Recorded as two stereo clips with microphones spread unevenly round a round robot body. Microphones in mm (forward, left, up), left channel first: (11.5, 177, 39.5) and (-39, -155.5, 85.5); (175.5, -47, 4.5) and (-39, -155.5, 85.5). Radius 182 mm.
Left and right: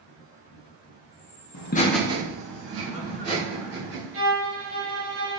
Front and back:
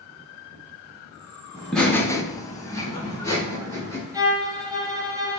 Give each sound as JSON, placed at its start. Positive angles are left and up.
{"t": 1.5, "sound": "laughter", "azimuth_deg": 100, "distance_m": 0.7}
{"t": 4.1, "sound": "a violin", "azimuth_deg": -55, "distance_m": 1.2}